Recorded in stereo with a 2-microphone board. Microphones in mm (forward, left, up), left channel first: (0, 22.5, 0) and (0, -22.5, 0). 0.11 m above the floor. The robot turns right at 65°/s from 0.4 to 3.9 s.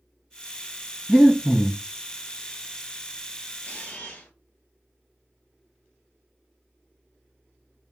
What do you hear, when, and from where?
1.1 s breathing: 15° right, 0.8 m; by 1.8 s 30° left, 0.8 m
3.6 s a camera shutter: 45° left (ahead or behind), 1.6 m; by 4.3 s 35° left (ahead or behind), 1.6 m